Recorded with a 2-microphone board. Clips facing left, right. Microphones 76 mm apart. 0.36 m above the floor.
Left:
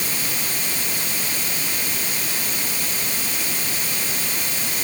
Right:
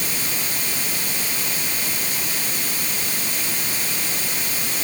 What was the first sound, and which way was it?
Only background noise.